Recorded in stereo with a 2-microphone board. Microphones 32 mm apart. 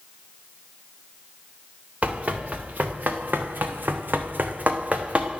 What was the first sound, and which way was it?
Running footsteps, 50° right (ahead or behind).